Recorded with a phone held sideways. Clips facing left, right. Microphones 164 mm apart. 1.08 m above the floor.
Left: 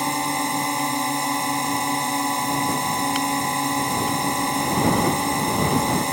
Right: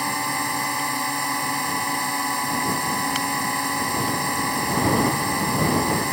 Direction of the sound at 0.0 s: 20° left (ahead or behind).